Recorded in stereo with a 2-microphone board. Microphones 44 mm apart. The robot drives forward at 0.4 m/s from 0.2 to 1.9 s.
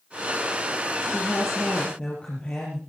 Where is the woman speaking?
30° left (ahead or behind), 4.5 m; by 2.8 s 25° left (ahead or behind), 4.5 m.